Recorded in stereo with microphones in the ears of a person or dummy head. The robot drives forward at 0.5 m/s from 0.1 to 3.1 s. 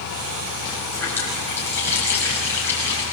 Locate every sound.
0.9 s a running tap: 15° left (ahead or behind), 7 m